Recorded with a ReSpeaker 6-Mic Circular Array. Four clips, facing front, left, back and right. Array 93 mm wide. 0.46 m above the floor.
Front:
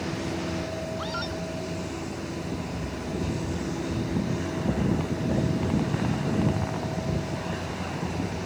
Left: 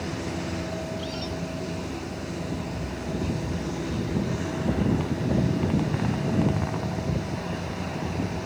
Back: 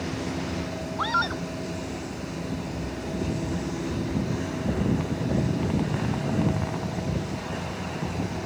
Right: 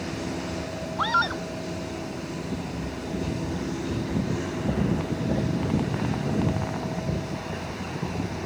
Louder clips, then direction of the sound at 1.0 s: Right 8 dB, back 5 dB; 120° right.